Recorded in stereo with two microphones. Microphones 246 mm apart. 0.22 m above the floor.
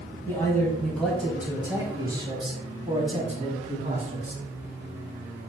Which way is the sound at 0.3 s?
10° left (ahead or behind).